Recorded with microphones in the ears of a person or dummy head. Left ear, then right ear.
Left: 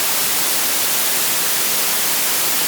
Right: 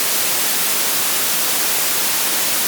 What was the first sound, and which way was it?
Only background noise.